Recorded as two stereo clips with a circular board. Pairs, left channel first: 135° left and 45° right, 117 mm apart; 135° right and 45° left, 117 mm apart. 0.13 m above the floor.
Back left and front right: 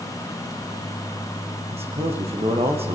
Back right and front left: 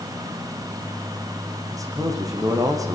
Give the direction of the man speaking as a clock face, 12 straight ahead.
12 o'clock.